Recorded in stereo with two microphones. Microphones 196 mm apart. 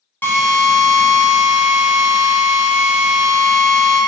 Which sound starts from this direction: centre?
A drill, at 0.2 s.